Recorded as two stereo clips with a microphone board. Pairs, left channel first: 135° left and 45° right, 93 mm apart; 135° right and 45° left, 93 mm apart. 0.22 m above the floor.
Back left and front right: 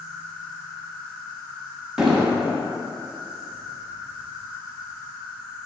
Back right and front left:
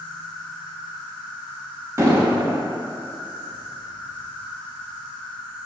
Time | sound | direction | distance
0.0 | an insect | 175° right | 1.7 m
2.0 | an explosion | 35° left | 0.7 m